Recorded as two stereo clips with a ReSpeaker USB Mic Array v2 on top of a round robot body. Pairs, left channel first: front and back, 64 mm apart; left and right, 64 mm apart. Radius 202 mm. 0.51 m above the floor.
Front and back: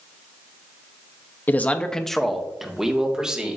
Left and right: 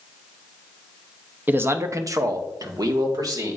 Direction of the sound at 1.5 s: 40° right.